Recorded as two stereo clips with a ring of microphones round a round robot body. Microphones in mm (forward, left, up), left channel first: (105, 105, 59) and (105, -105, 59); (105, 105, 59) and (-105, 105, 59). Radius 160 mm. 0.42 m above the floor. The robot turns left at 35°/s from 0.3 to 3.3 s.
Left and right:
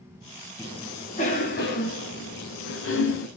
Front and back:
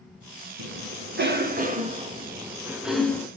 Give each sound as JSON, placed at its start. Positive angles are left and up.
{"t": 0.6, "sound": "a cough", "azimuth_deg": 175, "distance_m": 4.5}